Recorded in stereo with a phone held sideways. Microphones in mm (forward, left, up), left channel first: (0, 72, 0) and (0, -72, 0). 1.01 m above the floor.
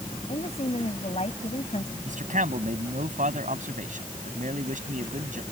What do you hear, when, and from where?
0.3 s a woman speaking: 50° left (ahead or behind)
2.0 s a man speaking: 65° right (ahead or behind)